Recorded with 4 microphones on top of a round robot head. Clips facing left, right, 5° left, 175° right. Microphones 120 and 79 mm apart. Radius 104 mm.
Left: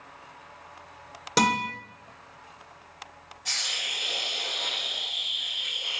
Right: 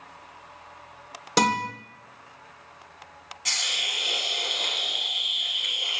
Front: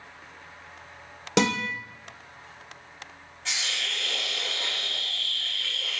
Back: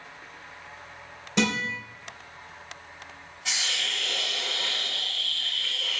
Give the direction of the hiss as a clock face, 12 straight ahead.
3 o'clock.